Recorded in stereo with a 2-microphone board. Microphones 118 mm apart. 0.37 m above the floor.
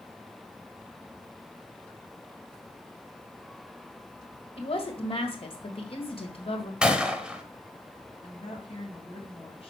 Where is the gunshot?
5° right (ahead or behind), 1.0 m.